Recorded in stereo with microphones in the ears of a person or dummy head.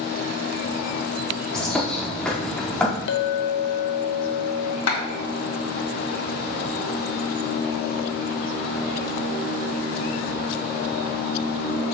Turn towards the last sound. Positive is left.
turn(degrees=85)